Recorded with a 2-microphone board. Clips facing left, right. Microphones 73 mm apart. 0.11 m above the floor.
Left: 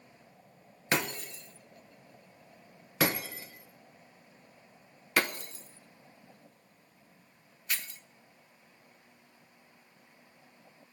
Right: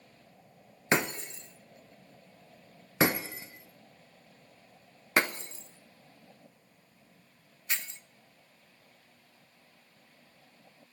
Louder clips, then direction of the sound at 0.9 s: Right 3 dB; 25° right (ahead or behind).